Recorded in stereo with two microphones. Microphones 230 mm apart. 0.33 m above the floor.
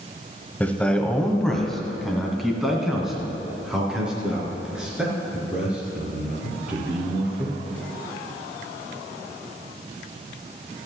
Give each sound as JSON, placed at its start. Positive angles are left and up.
{"t": 0.6, "sound": "a man speaking", "side_deg": 5, "distance_m": 1.3}